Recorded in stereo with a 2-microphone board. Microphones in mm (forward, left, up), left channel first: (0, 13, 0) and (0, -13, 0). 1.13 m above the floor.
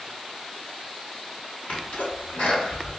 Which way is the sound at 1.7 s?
75° left (ahead or behind).